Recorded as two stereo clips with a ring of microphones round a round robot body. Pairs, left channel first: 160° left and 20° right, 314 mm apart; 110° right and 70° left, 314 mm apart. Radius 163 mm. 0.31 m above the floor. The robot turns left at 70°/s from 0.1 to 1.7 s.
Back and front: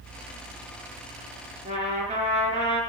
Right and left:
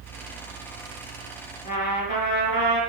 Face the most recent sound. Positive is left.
turn(degrees=-90)